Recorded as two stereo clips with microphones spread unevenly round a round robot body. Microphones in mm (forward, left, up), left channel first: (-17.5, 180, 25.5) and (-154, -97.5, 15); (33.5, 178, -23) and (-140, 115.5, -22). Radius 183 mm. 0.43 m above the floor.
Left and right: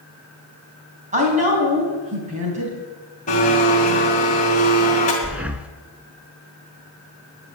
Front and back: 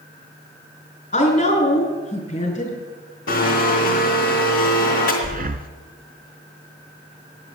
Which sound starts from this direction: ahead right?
A woman speaking, at 1.1 s.